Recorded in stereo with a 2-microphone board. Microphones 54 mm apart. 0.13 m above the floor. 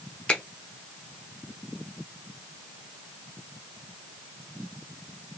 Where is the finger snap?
20° left (ahead or behind), 0.9 m.